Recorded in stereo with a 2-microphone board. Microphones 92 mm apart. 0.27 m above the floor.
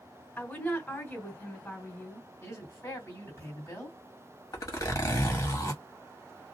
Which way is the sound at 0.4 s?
20° left (ahead or behind).